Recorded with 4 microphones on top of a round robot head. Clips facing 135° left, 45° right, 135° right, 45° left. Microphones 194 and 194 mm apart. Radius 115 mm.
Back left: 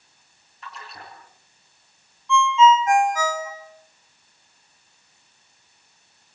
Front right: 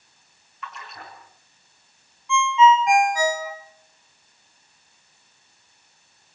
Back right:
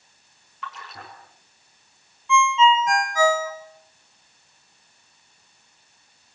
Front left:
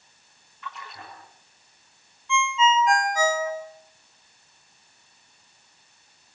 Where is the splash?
165° right, 5.5 m.